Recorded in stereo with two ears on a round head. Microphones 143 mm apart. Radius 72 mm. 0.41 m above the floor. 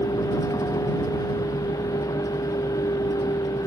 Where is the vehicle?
20° left (ahead or behind).